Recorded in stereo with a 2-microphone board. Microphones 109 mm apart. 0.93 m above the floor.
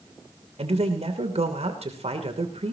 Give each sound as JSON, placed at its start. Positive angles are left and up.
{"t": 0.6, "sound": "a man speaking", "side_deg": -75, "distance_m": 3.0}